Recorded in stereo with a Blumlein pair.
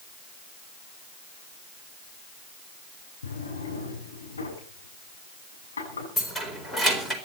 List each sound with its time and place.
3.2 s a drawer: 70° left, 8 m
6.2 s keys jangling: 5° left, 4 m